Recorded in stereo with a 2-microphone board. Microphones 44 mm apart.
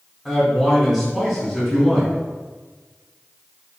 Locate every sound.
0.2 s a man speaking: 5° left (ahead or behind), 1.3 m